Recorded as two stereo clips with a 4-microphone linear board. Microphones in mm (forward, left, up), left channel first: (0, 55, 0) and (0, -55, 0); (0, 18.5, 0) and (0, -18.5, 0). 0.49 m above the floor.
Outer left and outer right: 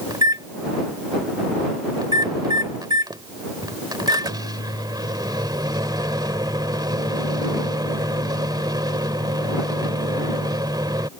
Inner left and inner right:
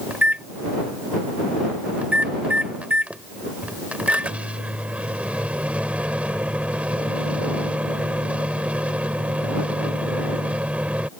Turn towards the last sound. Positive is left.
turn(degrees=-40)  # may be behind; listen again after turning